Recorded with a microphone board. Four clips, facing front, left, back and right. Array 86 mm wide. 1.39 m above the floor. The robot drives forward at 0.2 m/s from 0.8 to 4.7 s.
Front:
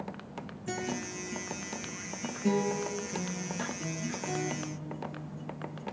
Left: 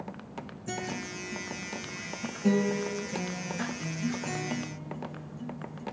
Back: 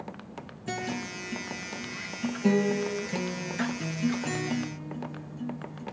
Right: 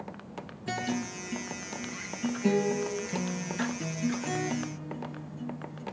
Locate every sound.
0.7 s a guitar: 110° right, 0.5 m; by 5.8 s 165° right, 1.0 m